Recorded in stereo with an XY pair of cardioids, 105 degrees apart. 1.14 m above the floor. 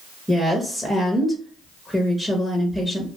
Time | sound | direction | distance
0.3 | a woman speaking | 5° right | 0.9 m